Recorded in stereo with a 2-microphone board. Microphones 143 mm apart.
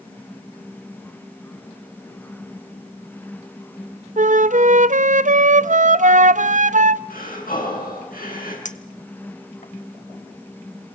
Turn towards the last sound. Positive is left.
turn(degrees=60)  # may be behind; listen again after turning